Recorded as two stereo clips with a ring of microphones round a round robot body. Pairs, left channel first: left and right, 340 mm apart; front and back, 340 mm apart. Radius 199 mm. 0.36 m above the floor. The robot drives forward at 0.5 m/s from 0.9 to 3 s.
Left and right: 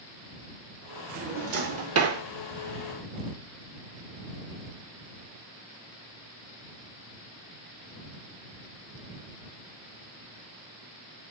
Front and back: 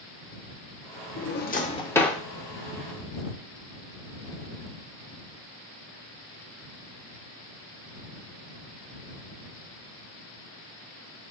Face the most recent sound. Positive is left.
turn(degrees=-130)